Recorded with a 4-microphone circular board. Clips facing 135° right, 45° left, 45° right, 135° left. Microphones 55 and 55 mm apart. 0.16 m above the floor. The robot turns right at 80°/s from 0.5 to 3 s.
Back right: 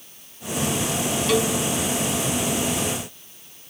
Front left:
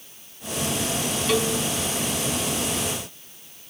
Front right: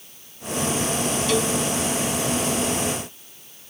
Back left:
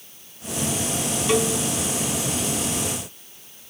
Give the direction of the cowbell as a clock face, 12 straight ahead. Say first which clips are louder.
Back right 1 dB, back left 3 dB; 8 o'clock.